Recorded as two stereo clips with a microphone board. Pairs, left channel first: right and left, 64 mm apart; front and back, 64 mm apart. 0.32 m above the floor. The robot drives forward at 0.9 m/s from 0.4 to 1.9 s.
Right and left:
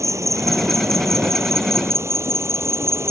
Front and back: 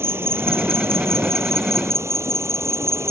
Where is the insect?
130° left; by 3.1 s 135° left.